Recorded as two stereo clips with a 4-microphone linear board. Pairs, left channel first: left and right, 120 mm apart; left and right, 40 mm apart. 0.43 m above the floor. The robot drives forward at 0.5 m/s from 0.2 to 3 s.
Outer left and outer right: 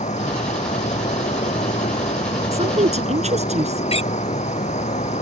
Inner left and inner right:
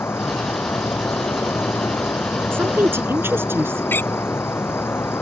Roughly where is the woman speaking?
Right.